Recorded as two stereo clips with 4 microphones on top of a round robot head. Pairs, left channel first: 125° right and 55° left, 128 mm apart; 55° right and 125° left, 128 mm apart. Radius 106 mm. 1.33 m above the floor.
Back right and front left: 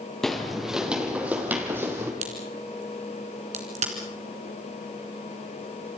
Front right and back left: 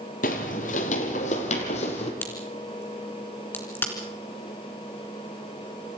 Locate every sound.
0.2 s footsteps: 35° right, 1.8 m; by 2.1 s 15° right, 2.5 m
2.2 s a crack: 20° left, 3 m